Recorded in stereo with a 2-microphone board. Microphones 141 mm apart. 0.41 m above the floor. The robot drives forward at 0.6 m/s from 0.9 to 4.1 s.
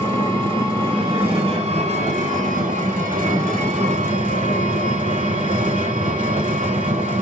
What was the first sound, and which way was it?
An engine running, 40° right (ahead or behind).